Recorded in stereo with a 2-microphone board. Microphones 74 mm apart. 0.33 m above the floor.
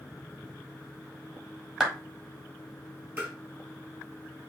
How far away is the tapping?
About 3 m.